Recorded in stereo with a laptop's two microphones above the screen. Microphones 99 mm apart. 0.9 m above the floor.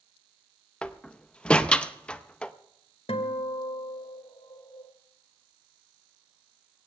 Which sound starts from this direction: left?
A guitar, at 3.1 s.